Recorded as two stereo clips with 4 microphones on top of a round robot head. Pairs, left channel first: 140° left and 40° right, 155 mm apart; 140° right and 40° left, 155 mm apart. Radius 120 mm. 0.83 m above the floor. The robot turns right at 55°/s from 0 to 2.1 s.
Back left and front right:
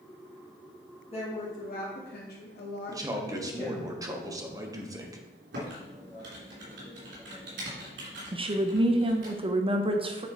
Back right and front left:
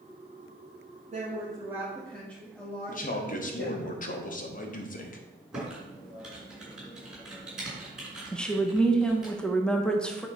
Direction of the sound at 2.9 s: 110° right.